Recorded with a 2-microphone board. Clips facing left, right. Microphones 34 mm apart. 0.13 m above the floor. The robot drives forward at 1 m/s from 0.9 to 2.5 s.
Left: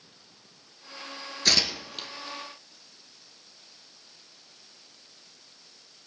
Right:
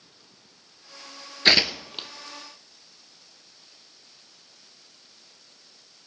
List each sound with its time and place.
1.4 s tearing paper: 45° right (ahead or behind), 0.5 m; by 2.1 s 20° right (ahead or behind), 1.0 m